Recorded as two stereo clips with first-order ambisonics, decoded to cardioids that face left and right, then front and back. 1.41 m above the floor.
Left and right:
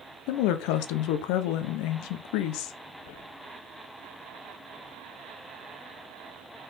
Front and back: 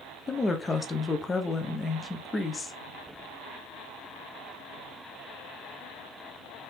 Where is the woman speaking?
75° left, 0.7 m.